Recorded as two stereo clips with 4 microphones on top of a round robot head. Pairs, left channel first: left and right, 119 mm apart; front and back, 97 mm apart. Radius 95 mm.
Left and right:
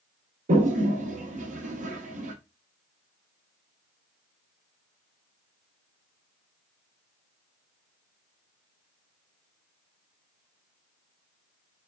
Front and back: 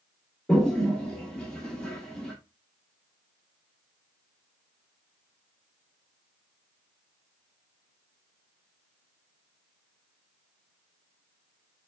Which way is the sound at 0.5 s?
85° right.